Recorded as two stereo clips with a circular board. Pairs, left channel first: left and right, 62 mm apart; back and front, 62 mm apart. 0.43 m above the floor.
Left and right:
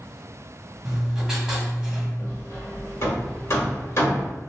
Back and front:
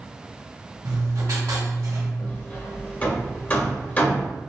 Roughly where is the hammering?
Behind left.